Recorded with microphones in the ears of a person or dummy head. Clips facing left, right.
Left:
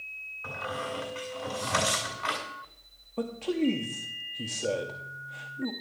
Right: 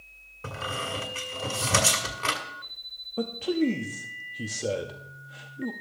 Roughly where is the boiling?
No boiling in this recording.